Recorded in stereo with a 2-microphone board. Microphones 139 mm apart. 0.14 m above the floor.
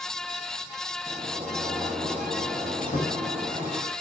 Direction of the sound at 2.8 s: 85° left.